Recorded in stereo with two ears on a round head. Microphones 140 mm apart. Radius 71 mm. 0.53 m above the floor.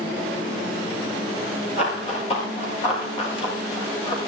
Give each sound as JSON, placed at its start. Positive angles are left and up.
{"t": 1.8, "sound": "running footsteps", "side_deg": 40, "distance_m": 9.5}